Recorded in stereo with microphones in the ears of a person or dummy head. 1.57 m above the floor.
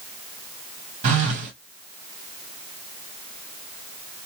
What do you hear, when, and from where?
1.0 s a phone buzzing: 40° right (ahead or behind), 1.8 m